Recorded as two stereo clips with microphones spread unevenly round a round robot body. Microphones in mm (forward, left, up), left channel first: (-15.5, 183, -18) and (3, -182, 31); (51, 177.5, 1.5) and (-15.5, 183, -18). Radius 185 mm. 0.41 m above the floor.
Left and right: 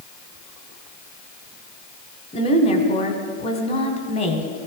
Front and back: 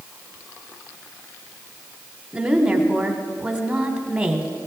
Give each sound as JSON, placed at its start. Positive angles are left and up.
{"t": 2.3, "sound": "a woman speaking", "azimuth_deg": 135, "distance_m": 1.6}